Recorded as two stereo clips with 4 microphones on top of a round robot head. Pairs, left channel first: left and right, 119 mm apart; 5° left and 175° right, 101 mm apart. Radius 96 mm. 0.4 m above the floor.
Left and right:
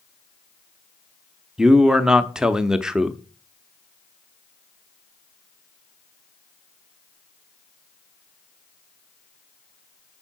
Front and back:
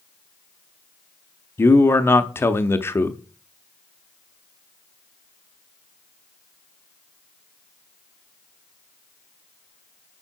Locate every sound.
1.6 s a man speaking: 15° right, 0.8 m